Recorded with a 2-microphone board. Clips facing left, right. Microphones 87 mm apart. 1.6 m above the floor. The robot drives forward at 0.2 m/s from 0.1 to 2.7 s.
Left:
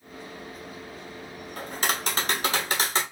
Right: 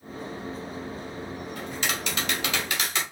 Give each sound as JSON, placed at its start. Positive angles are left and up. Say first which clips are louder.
{"t": 1.6, "sound": "tapping", "louder": "left 4 dB", "side_deg": 40, "distance_m": 0.7}